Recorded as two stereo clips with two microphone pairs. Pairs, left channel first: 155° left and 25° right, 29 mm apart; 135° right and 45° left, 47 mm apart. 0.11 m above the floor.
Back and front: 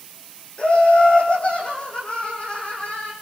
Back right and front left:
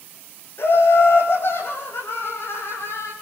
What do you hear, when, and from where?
0.6 s laughter: 165° right, 7 m